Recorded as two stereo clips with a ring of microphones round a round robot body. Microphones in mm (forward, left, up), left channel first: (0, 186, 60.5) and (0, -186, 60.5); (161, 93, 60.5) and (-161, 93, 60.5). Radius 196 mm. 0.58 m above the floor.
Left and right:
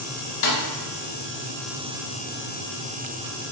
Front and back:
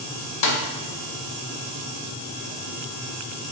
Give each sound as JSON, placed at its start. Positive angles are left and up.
{"t": 0.4, "sound": "a snare drum", "azimuth_deg": 35, "distance_m": 0.7}